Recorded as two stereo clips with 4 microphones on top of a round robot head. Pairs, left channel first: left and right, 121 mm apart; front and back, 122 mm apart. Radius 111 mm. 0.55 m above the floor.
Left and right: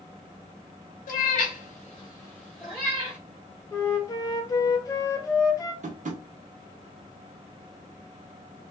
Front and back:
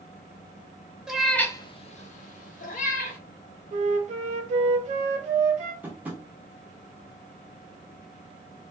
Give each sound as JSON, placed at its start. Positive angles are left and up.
{"t": 1.1, "sound": "a cat meowing", "azimuth_deg": 95, "distance_m": 0.6}
{"t": 3.7, "sound": "a flute", "azimuth_deg": 155, "distance_m": 0.6}
{"t": 5.8, "sound": "tapping", "azimuth_deg": -100, "distance_m": 0.6}